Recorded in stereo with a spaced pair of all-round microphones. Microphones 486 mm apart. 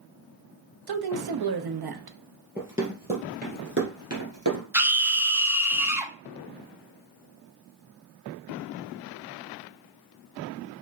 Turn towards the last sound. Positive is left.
turn(degrees=-5)  # may be behind; listen again after turning